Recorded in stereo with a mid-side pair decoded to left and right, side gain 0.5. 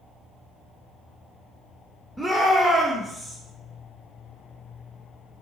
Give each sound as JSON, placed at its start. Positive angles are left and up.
{"t": 2.2, "sound": "a shout", "azimuth_deg": -10, "distance_m": 0.7}